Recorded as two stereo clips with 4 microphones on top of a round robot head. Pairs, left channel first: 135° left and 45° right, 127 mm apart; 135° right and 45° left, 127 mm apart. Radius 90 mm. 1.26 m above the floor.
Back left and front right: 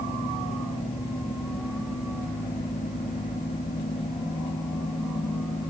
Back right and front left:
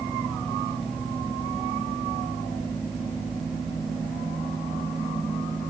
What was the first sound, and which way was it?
Only background noise.